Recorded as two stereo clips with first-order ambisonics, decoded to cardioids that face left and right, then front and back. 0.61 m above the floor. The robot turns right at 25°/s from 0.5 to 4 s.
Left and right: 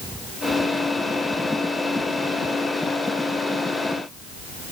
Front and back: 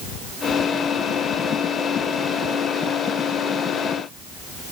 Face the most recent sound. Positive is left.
No sound to turn to.